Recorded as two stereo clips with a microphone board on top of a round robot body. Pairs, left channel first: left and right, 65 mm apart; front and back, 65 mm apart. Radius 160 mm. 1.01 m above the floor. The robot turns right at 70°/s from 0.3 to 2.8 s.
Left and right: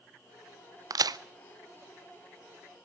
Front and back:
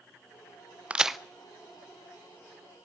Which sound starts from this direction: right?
A crack, at 0.9 s.